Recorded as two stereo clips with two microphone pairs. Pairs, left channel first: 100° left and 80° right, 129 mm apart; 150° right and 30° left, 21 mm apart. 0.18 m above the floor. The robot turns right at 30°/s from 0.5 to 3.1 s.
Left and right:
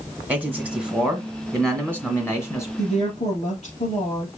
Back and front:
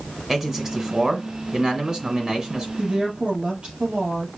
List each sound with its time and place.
0.3 s a man speaking: 15° right, 1.7 m; by 2.7 s 50° left, 1.7 m
2.8 s a woman speaking: 70° left, 4 m; by 4.3 s 80° left, 4 m